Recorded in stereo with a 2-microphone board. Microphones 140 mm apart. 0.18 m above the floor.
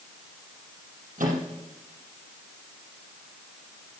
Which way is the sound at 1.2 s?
75° right (ahead or behind).